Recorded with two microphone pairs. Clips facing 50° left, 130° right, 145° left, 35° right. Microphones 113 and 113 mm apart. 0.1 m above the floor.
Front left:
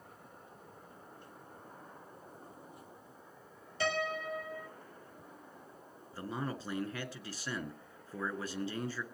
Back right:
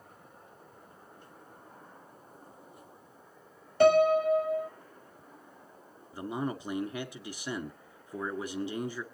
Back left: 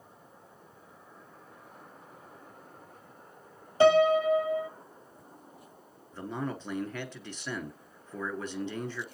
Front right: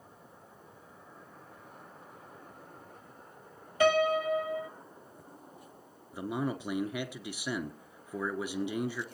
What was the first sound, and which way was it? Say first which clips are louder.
A piano: back right 14 dB, back left 5 dB; 160° right.